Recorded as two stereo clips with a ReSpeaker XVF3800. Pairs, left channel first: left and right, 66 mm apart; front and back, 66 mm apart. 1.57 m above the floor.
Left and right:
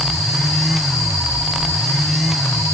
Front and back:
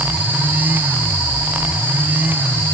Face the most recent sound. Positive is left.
No sound to turn to.